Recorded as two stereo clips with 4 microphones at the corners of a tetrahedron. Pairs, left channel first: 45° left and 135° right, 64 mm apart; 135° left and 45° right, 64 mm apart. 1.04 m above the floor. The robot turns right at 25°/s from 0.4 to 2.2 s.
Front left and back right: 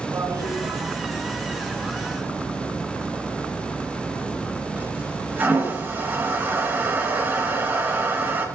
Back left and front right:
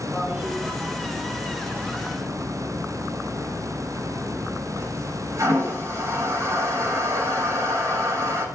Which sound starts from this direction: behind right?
A toilet flushing, at 0.1 s.